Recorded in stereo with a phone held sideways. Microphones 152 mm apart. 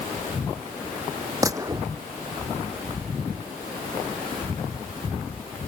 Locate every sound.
1.4 s a gunshot: 20° right (ahead or behind)